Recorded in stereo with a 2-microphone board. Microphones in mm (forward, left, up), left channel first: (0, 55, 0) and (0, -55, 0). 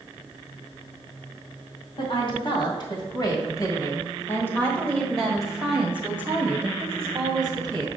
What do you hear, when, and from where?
2.0 s a woman speaking: 50° left (ahead or behind), 2 m; by 7.9 s 35° right (ahead or behind), 2.0 m